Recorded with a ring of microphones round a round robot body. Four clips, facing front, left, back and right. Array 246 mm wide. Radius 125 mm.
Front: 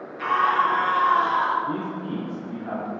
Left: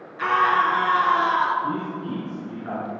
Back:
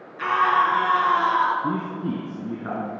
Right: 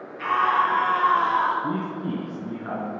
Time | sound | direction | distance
0.2 | a scream | 120° left | 7 m
1.6 | a man speaking | 160° right | 5.5 m